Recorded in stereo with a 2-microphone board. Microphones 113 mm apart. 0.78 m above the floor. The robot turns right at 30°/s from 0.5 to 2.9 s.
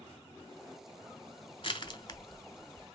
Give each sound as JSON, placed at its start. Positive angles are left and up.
{"t": 1.6, "sound": "crushing", "side_deg": 45, "distance_m": 0.8}